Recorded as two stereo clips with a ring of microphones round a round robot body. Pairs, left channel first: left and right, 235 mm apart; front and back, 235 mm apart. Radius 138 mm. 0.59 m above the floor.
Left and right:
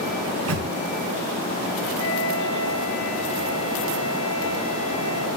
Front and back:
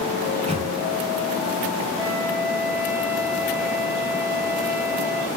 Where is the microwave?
115° right, 6 m.